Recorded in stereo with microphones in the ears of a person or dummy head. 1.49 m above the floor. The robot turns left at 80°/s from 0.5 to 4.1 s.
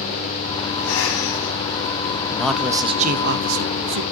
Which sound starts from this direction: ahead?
A man speaking, at 2.3 s.